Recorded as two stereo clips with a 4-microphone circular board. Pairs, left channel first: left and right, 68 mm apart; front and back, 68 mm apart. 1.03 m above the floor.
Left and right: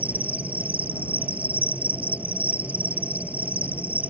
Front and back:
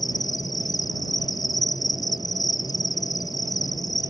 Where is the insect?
20° right.